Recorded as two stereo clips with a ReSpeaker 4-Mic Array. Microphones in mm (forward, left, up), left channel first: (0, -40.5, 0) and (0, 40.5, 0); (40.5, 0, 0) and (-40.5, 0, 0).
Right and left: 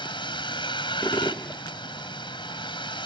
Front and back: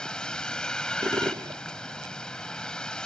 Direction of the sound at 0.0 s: 80° right.